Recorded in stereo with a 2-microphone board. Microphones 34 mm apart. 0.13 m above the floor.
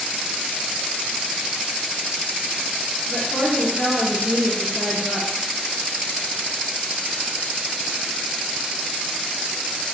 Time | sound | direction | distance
3.1 | a woman speaking | 20° left (ahead or behind) | 1.8 m